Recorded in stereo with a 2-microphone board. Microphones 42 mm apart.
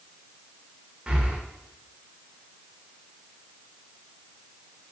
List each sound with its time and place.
1.1 s breathing: 25° right (ahead or behind), 0.5 m